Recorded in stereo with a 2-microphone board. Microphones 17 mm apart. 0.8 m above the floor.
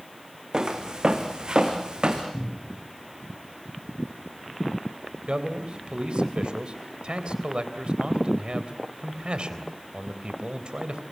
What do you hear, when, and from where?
0.5 s footsteps: 45° right (ahead or behind), 4 m; by 2.2 s 55° right (ahead or behind), 4 m
2.3 s a cupboard door: 65° left (ahead or behind), 9.5 m
5.3 s a man speaking: 80° right, 3.5 m